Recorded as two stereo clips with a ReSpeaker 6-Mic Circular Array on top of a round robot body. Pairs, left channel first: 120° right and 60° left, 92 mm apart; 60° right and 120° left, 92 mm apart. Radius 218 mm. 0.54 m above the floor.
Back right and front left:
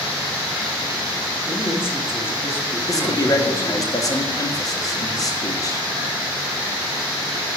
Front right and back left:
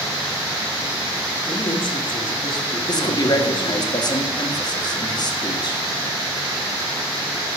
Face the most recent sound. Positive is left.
turn(degrees=-80)